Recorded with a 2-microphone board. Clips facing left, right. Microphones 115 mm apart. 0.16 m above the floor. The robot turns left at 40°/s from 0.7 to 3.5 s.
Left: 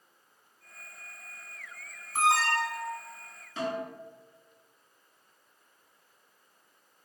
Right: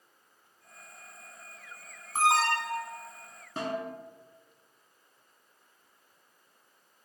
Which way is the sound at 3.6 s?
55° right (ahead or behind).